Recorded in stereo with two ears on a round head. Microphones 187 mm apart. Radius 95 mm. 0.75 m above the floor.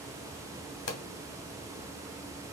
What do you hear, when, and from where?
0.9 s a pop: 55° left (ahead or behind), 0.7 m